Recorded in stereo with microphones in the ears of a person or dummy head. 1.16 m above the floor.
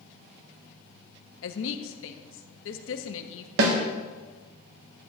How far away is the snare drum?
About 1.4 m.